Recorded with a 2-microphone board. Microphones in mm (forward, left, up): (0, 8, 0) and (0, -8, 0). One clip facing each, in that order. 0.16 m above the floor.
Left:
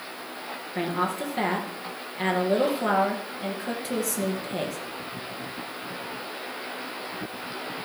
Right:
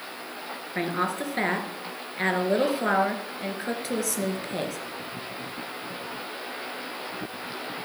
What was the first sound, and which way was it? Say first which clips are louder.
A woman speaking: even; 30° right (ahead or behind).